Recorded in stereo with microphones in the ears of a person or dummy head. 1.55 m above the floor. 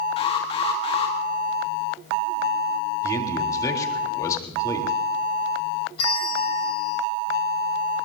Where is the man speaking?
15° left (ahead or behind), 3.5 m.